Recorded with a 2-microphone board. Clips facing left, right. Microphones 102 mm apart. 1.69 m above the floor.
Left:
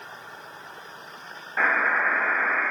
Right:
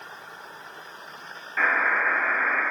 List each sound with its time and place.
1.6 s a buzzer: 25° left (ahead or behind), 2.5 m